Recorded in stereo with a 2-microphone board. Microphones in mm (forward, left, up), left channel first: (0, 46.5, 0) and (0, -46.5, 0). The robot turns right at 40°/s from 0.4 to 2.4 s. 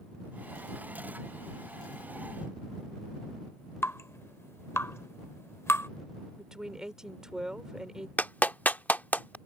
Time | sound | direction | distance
3.8 | dripping | 30° left (ahead or behind) | ?
6.4 | a woman speaking | 5° right (ahead or behind) | ?
8.2 | a clap | 15° left (ahead or behind) | ?